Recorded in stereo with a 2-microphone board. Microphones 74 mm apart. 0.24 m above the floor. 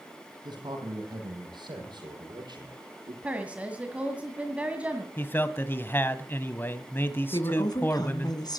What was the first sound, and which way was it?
A man speaking, 70° right (ahead or behind).